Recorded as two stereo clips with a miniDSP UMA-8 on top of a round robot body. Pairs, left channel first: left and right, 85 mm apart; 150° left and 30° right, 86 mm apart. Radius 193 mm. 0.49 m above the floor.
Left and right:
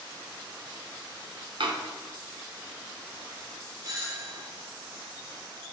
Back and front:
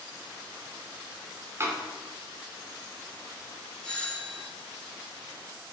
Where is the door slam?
90° right, 1.8 m.